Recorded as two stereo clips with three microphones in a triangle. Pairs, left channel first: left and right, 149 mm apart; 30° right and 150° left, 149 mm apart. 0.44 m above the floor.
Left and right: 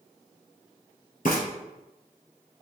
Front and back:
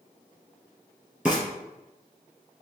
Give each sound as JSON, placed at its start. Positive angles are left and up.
{"t": 1.2, "sound": "frying", "azimuth_deg": 65, "distance_m": 2.0}